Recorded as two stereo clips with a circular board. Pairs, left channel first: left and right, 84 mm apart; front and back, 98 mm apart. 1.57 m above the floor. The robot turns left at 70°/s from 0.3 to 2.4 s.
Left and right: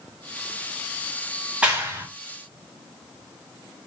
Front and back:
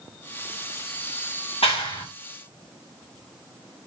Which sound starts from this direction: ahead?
A clap, at 1.6 s.